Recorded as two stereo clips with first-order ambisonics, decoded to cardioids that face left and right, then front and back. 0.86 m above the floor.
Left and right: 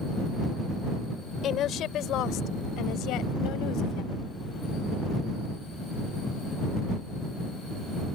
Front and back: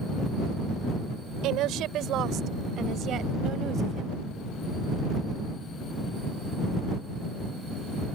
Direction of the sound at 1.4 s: 145° left.